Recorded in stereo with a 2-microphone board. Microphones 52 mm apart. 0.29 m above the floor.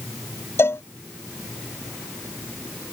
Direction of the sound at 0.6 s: 55° left (ahead or behind).